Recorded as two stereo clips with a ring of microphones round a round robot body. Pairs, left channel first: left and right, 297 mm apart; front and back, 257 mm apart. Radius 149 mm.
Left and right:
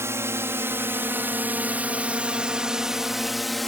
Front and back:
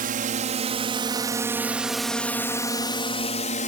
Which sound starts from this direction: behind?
A drone, at 0.0 s.